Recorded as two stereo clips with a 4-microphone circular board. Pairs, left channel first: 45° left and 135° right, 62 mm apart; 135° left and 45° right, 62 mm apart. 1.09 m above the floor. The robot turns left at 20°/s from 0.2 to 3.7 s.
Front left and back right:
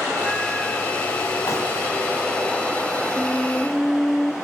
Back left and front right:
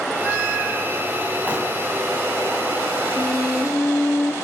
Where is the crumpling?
20° left, 2.5 m.